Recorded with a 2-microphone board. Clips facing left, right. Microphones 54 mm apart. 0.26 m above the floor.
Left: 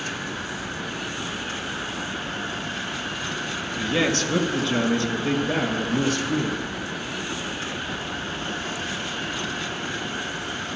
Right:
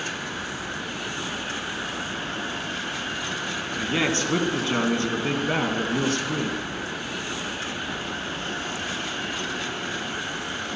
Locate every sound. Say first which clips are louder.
3.7 s a man speaking: left 2 dB; 20° right (ahead or behind), 2.5 m; by 6.6 s 45° right (ahead or behind), 3.5 m